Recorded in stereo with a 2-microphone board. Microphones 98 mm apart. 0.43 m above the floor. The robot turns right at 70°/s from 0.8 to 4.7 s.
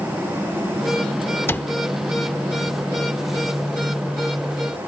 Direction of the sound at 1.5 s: 25° left (ahead or behind).